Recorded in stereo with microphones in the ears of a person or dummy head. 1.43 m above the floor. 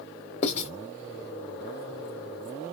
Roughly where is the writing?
Left.